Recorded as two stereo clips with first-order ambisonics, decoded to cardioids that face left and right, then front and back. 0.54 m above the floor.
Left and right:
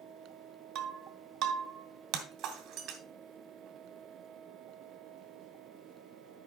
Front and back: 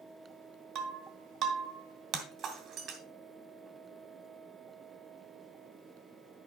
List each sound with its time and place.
0.8 s breaking glass: 135° right, 1.6 m